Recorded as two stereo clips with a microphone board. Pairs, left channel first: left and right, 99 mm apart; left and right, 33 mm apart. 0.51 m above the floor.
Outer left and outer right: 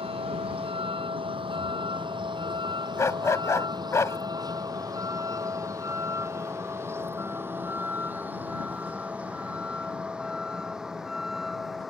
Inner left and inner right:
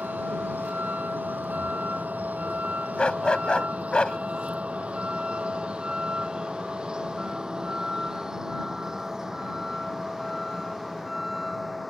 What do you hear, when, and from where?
0.0 s a vehicle: 70° right (ahead or behind); by 11.9 s centre (ahead or behind)
3.0 s a dog barking: 30° left (ahead or behind)